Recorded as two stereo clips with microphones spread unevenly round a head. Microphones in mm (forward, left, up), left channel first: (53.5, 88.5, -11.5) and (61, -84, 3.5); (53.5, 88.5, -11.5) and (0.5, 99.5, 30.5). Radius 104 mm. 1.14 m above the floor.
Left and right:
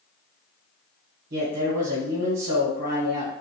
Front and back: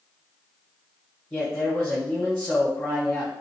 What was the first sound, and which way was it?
A man speaking, 65° right.